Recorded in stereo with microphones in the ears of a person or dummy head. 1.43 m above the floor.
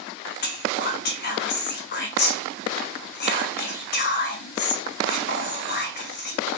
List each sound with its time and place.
0.4 s whispering: 50° left (ahead or behind), 0.8 m